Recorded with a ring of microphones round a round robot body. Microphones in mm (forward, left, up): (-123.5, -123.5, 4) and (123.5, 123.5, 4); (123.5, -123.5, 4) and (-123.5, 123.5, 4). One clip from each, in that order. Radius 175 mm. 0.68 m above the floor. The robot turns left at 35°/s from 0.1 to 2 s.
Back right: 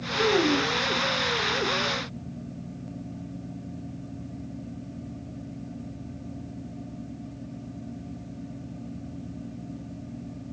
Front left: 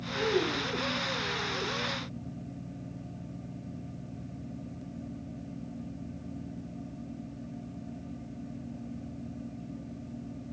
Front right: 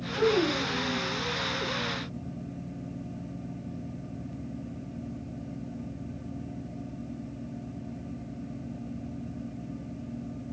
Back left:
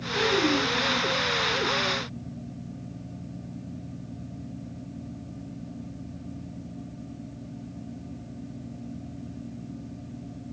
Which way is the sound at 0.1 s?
90° right.